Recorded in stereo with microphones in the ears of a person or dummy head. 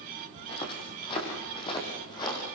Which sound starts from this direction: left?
Footsteps, at 0.4 s.